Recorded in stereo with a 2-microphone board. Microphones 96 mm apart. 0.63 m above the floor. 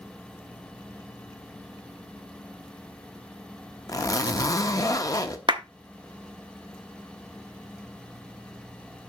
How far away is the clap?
About 0.8 m.